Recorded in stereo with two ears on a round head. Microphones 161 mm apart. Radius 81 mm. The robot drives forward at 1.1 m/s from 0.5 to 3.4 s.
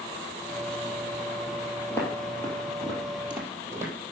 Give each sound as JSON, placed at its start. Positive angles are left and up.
{"t": 1.9, "sound": "footsteps", "side_deg": 15, "distance_m": 3.5}